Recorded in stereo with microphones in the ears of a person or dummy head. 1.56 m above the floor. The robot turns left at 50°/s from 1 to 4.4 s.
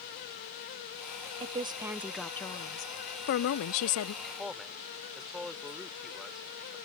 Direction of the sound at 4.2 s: 5° right (ahead or behind).